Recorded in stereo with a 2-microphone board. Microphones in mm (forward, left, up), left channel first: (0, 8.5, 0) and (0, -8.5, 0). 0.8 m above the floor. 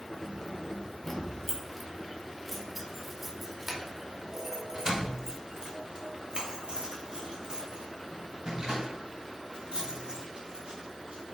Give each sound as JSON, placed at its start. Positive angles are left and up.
{"t": 0.1, "sound": "keys jangling", "side_deg": 40, "distance_m": 2.0}